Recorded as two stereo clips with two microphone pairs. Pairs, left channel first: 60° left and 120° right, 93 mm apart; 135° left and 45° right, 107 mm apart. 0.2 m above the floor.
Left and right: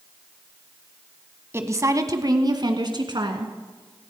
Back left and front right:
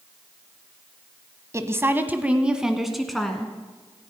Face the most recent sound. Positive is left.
turn(degrees=-140)